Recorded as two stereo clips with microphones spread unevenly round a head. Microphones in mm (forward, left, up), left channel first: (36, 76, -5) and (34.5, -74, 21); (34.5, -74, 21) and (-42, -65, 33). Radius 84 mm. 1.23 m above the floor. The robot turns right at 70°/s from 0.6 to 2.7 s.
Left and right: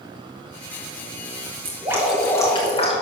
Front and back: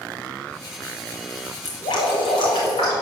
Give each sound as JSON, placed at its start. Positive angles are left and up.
{"t": 1.6, "sound": "dripping", "azimuth_deg": -35, "distance_m": 3.5}